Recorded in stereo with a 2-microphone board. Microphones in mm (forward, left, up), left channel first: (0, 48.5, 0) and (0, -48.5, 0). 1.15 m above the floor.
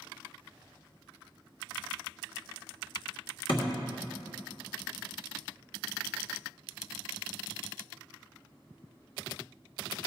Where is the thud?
55° left (ahead or behind), 1.4 m.